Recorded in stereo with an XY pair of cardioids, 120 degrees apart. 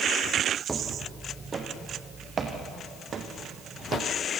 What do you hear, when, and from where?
0.7 s footsteps: 20° right, 4 m; by 4.1 s 50° right, 4.5 m